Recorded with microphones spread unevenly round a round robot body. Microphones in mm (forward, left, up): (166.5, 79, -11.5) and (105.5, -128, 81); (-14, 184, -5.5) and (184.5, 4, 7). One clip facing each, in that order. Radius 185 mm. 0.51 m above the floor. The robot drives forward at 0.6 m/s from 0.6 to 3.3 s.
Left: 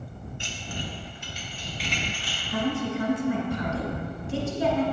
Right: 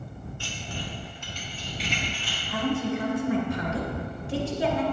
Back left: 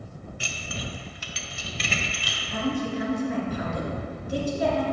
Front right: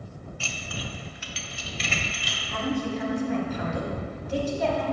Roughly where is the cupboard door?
No cupboard door in this recording.